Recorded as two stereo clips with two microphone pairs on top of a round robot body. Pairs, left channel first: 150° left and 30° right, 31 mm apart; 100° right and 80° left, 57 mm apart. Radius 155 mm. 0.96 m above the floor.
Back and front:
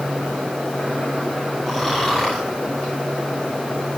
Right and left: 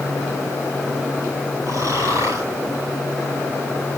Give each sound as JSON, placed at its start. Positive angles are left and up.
{"t": 1.7, "sound": "snoring", "azimuth_deg": 60, "distance_m": 9.0}